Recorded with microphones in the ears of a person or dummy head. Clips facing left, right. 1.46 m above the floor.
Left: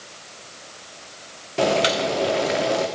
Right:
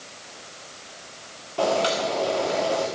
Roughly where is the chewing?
I don't hear chewing.